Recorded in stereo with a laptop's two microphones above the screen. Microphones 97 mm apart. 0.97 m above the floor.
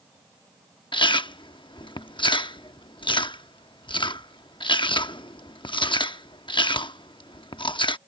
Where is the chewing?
50° left (ahead or behind).